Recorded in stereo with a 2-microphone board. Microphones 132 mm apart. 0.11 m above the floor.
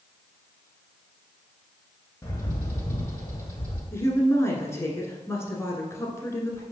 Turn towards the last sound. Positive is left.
turn(degrees=20)  # may be behind; listen again after turning